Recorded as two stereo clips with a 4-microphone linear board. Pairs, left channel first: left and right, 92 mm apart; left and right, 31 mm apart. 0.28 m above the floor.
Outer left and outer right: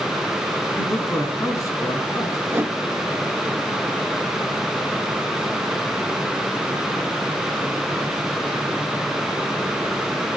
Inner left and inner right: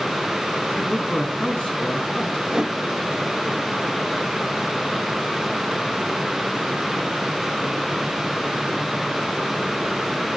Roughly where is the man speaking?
Left.